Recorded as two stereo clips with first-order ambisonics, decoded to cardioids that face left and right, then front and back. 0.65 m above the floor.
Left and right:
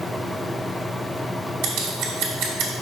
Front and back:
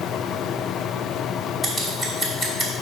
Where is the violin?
I don't hear a violin.